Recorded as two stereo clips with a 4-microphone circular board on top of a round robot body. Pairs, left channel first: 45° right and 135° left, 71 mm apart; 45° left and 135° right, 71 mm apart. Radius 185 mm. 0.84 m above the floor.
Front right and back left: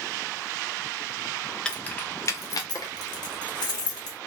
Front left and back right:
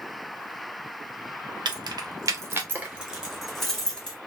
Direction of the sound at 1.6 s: 125° right.